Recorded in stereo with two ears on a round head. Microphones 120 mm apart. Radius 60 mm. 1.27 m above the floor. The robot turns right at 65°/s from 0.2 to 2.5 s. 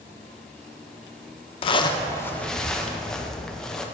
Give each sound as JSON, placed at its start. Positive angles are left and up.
{"t": 1.6, "sound": "a zipper", "azimuth_deg": 115, "distance_m": 0.6}